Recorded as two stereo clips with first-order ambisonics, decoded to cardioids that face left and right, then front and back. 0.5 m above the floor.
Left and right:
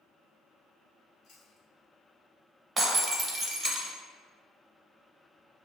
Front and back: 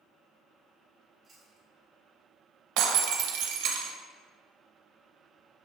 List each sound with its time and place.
1.2 s chewing: 110° left, 1.5 m
2.8 s breaking glass: 165° right, 0.7 m